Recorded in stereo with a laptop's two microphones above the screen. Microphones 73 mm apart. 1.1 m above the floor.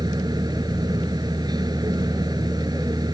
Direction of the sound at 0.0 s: 70° right (ahead or behind).